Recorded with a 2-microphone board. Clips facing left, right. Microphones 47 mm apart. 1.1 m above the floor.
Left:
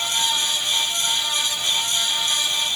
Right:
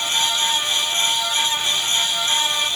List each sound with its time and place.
Only background noise.